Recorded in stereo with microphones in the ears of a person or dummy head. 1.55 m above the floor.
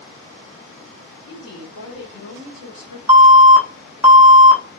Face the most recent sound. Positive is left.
turn(degrees=-15)  # may be behind; listen again after turning